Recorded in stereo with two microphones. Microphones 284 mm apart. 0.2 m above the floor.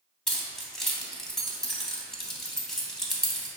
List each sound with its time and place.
0.3 s keys jangling: centre (ahead or behind), 0.7 m